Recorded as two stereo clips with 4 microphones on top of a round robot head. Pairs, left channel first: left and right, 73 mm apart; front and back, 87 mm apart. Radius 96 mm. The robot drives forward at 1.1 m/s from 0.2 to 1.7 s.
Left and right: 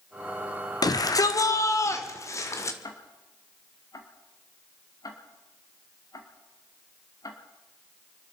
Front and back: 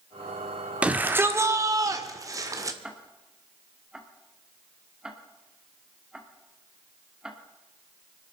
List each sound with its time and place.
0.8 s a shout: 105° left, 1.7 m; by 2.7 s 135° left, 2 m
2.8 s ticking: 100° left, 2 m